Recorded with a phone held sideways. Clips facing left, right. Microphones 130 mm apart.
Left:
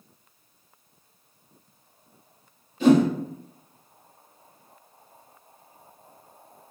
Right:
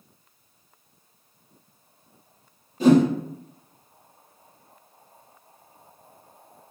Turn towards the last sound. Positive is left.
turn(degrees=-40)  # may be behind; listen again after turning